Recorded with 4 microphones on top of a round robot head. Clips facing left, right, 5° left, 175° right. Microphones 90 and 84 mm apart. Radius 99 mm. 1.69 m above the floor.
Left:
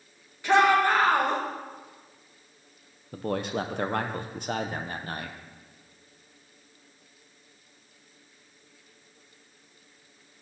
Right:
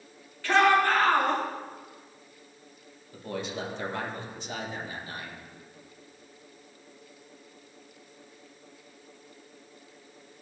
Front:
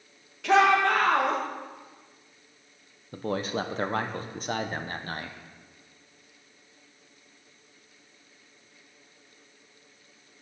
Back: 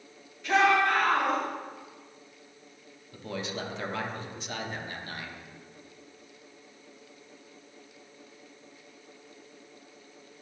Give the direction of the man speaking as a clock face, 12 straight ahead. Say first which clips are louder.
Left 5 dB, front 6 dB; 10 o'clock.